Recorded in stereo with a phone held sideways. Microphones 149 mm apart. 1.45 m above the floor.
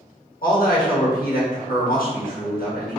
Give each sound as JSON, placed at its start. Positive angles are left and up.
{"t": 0.4, "sound": "a man speaking", "side_deg": 80, "distance_m": 1.2}